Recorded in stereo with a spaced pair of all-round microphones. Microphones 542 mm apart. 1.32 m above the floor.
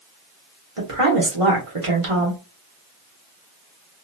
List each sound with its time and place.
0.8 s a woman speaking: 75° right (ahead or behind), 1.3 m